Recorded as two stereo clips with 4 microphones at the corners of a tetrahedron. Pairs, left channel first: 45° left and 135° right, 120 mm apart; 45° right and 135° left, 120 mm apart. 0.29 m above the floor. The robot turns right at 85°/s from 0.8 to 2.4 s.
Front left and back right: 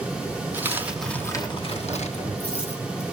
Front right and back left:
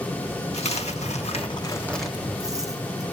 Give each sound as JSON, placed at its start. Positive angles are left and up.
{"t": 0.5, "sound": "a dropped coin", "azimuth_deg": -60, "distance_m": 1.2}